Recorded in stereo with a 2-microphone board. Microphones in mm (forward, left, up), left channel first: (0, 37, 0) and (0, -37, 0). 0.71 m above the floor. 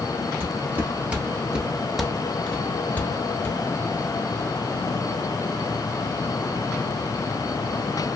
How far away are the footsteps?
About 1.2 m.